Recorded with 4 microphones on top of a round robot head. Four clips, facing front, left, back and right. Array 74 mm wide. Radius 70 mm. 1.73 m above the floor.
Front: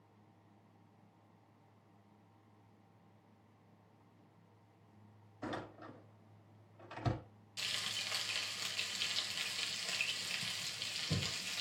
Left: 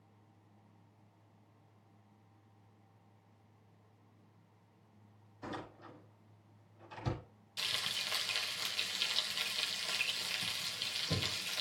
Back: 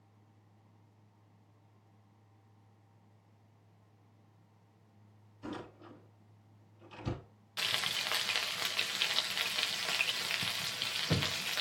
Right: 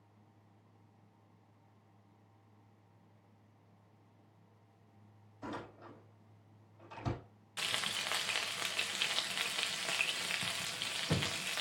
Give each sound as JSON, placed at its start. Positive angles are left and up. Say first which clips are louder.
{"t": 5.4, "sound": "a door slam", "louder": "even, even", "azimuth_deg": -15, "distance_m": 6.0}
{"t": 7.6, "sound": "frying", "louder": "right 2 dB, back 7 dB", "azimuth_deg": -140, "distance_m": 0.9}